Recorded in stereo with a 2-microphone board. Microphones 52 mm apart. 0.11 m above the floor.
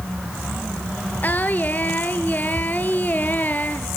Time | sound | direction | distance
1.2 | singing | 35° left (ahead or behind) | 1.1 m